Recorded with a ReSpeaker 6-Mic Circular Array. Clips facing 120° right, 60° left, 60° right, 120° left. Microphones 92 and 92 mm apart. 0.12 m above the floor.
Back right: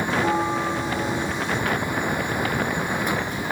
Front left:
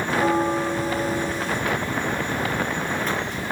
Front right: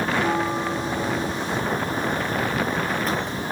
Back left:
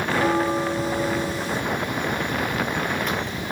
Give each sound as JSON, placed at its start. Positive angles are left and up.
{"t": 0.1, "sound": "a bell", "azimuth_deg": 85, "distance_m": 1.5}